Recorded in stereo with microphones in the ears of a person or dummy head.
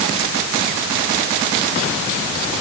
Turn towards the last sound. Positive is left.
No sound to turn to.